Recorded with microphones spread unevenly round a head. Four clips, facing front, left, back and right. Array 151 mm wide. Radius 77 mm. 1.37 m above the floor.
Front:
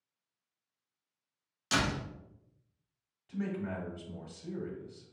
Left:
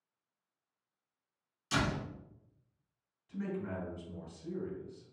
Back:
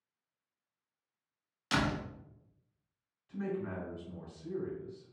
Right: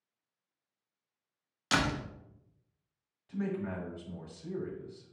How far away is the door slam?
About 0.9 m.